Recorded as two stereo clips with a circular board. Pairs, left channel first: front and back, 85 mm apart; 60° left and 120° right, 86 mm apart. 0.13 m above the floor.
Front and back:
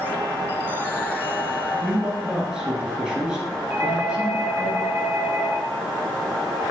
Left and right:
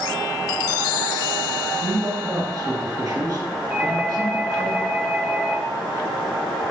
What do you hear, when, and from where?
1.8 s a man speaking: 105° right, 2 m
3.7 s a doorbell: 175° right, 1.7 m